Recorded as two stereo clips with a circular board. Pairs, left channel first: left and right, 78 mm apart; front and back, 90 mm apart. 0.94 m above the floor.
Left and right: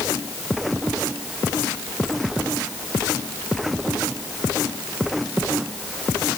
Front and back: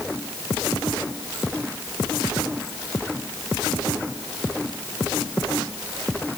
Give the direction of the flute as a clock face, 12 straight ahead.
No flute in this recording.